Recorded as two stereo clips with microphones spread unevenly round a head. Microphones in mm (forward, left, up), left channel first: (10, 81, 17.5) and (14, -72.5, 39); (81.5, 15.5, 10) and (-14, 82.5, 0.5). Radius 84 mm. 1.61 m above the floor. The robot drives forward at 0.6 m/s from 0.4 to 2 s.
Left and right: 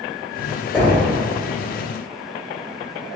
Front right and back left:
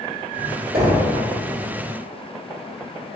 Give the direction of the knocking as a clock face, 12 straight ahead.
6 o'clock.